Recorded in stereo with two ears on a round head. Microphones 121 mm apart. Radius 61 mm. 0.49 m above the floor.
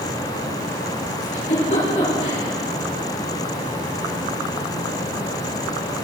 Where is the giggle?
55° left (ahead or behind), 7.5 m.